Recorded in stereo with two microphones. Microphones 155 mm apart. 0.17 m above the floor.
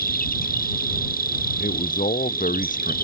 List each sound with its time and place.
0.0 s an insect: 65° left (ahead or behind)
1.6 s a man speaking: 55° left (ahead or behind)